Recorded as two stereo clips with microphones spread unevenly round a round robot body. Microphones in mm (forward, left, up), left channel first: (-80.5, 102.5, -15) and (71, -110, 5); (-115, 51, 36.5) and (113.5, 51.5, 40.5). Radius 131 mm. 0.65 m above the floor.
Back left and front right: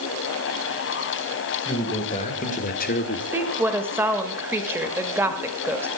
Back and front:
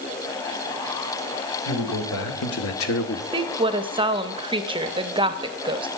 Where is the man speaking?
165° right, 3 m; by 3.2 s 165° left, 1.3 m.